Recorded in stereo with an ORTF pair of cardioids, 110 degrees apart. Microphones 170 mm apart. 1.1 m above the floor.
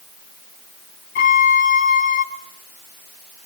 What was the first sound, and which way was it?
A violin, 65° left.